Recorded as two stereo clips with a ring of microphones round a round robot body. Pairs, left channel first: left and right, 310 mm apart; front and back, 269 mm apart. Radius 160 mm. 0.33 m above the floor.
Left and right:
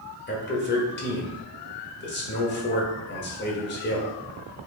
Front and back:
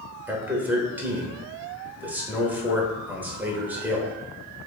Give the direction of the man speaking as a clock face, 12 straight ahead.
9 o'clock.